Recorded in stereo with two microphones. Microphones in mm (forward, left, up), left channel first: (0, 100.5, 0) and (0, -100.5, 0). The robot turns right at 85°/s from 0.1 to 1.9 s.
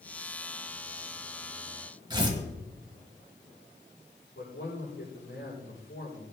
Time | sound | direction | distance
2.1 | tearing paper | 20° right (ahead or behind) | 1.7 m
4.3 | a man speaking | 75° left (ahead or behind) | 7 m